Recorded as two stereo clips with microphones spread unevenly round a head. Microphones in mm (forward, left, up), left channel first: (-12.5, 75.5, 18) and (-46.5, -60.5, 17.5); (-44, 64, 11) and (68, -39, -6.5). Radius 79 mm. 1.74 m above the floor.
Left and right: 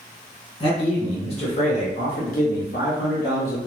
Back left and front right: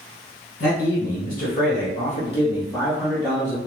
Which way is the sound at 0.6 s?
125° left.